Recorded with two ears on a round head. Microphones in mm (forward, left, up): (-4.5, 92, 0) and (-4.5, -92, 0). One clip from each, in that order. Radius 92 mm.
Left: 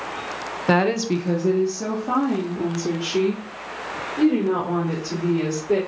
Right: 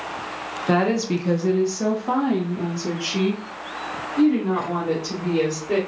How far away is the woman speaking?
About 0.6 m.